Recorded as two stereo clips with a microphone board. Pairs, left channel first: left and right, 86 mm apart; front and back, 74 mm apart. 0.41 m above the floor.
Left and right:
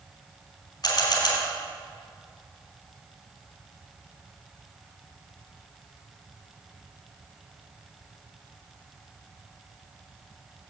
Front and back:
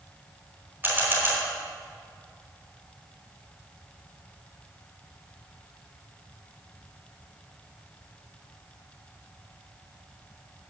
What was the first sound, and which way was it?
A camera shutter, 120° left.